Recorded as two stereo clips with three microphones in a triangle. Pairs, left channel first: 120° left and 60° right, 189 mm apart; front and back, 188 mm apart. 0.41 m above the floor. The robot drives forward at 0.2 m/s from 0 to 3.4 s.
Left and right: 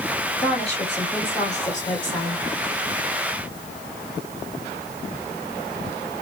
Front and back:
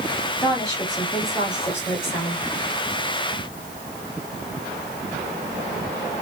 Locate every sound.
0.4 s a woman speaking: 65° left, 2 m; by 2.4 s 80° left, 2 m